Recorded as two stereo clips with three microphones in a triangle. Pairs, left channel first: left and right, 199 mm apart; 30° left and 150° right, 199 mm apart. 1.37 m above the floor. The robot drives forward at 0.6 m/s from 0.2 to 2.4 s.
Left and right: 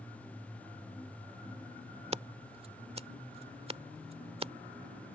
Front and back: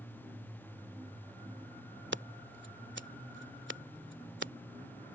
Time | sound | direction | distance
2.1 | scissors | 145° right | ?